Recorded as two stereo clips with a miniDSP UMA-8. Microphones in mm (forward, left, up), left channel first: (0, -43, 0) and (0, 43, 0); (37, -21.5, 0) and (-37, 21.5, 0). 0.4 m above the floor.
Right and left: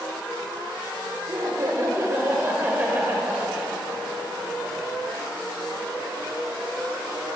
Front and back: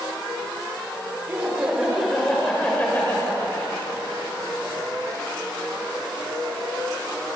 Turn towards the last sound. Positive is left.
turn(degrees=5)